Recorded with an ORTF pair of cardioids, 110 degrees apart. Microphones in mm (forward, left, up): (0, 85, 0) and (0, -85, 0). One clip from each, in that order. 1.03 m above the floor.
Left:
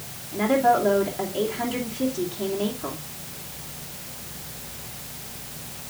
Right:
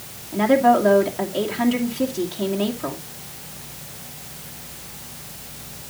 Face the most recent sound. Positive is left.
turn(degrees=-35)